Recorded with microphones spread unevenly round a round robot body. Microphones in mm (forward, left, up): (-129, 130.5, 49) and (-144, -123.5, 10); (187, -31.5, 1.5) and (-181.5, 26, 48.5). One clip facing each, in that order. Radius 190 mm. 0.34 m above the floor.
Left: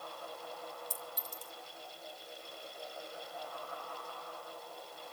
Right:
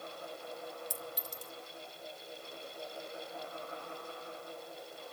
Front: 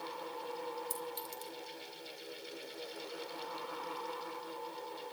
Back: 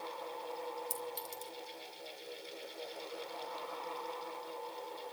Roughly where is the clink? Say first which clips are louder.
Right 3 dB, even; right.